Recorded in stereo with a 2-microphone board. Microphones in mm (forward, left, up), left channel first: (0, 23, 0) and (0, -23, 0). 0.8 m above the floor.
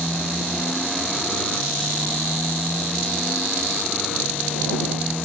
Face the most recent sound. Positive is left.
turn(degrees=-5)  # may be behind; listen again after turning